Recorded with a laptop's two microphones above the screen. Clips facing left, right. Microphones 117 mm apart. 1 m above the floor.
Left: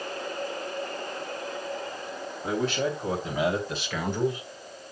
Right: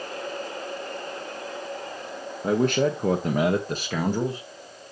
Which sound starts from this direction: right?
A man speaking, at 2.4 s.